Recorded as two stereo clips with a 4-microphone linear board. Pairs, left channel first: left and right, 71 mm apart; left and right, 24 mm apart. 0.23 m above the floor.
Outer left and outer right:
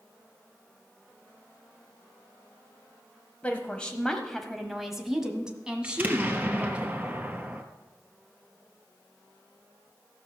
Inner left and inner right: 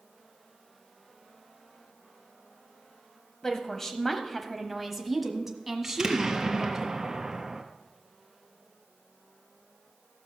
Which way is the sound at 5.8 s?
25° right (ahead or behind).